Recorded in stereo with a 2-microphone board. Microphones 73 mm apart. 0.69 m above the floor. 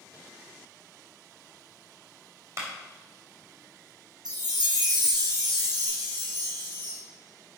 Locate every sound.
2.6 s a clap: 40° right (ahead or behind), 3.5 m
4.2 s a chime: 75° right (ahead or behind), 3.5 m